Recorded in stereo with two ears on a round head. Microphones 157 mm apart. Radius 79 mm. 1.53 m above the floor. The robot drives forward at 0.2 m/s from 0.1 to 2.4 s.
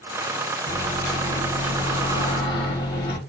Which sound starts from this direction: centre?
A microwave, at 0.7 s.